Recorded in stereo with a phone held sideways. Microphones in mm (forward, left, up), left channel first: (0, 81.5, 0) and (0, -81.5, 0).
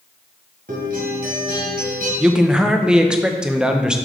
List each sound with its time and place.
0.7 s a guitar: 70° right (ahead or behind), 2 m
2.2 s a man speaking: 5° right (ahead or behind), 0.7 m